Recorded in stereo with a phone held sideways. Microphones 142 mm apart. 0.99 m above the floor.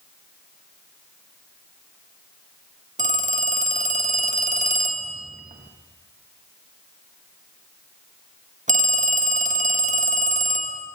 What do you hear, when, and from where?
3.0 s a phone ringing: 65° right (ahead or behind), 0.7 m